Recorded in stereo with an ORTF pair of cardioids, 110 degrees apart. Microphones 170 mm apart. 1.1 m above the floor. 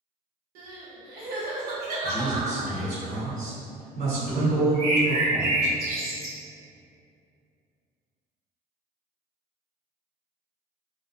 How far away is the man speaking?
About 1.3 m.